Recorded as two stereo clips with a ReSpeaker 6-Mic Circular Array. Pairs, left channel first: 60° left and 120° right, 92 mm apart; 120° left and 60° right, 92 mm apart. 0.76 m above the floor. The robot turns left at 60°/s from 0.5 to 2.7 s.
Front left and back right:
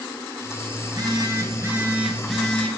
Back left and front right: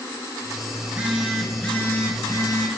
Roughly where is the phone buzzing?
Behind right.